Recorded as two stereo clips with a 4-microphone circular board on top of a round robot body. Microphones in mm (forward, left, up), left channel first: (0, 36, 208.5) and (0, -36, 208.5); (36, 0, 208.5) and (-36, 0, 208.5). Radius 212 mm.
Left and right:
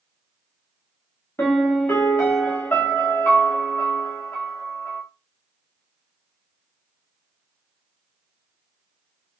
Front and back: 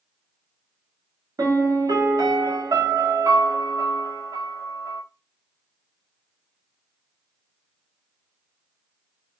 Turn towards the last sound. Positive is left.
turn(degrees=150)